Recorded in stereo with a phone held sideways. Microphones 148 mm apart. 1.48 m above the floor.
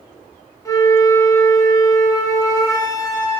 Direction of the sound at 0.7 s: 20° left (ahead or behind).